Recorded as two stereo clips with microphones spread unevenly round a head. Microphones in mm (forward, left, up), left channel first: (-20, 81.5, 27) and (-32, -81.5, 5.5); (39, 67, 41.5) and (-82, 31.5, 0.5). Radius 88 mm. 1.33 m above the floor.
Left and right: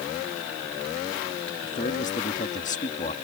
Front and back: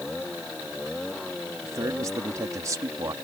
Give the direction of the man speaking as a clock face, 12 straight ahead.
8 o'clock.